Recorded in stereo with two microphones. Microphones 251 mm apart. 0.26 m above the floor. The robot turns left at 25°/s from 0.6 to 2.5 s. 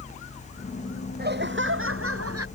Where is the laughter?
40° right; by 2.5 s 70° right.